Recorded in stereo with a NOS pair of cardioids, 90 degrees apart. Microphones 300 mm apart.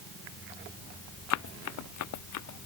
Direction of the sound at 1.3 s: 70° left.